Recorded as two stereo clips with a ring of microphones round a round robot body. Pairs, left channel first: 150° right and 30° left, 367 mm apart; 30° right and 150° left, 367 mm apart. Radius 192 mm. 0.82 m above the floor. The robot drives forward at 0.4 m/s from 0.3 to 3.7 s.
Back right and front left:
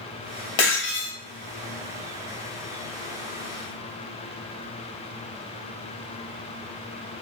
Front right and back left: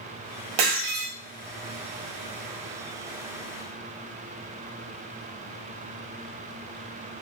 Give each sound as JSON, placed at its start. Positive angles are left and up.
{"t": 0.6, "sound": "breaking glass", "azimuth_deg": 175, "distance_m": 1.8}